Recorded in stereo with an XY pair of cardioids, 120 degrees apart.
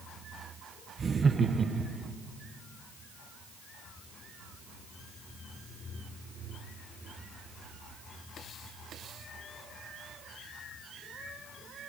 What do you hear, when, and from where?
1.0 s laughter: 30° right, 1.1 m